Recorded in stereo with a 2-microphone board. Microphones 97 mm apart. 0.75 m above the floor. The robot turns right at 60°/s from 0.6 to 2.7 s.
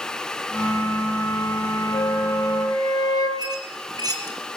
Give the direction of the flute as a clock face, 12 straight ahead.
9 o'clock.